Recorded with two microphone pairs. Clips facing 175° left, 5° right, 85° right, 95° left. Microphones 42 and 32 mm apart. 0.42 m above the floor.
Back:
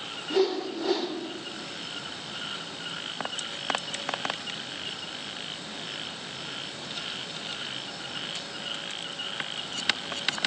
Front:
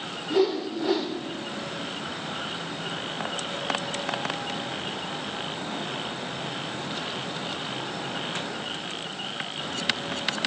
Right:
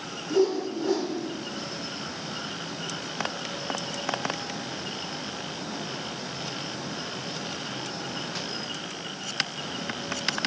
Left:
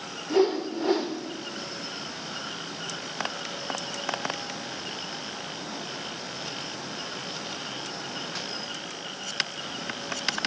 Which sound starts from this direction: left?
A whoosh, at 0.3 s.